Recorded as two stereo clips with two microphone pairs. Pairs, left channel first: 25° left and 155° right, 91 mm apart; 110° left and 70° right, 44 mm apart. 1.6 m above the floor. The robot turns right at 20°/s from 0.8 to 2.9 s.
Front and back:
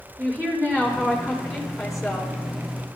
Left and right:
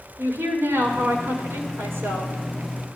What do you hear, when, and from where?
0.2 s a woman speaking: 85° right, 5.5 m; by 2.3 s 55° right, 5.5 m